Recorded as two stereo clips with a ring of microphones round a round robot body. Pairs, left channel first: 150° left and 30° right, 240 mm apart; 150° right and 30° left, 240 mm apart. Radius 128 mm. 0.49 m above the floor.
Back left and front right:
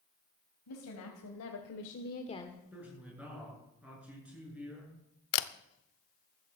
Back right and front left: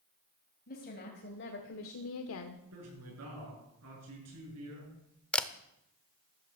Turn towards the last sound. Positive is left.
turn(degrees=125)